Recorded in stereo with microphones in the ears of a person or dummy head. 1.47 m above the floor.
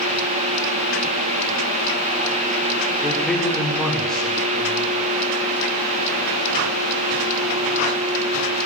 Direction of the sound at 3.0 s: 5° left (ahead or behind).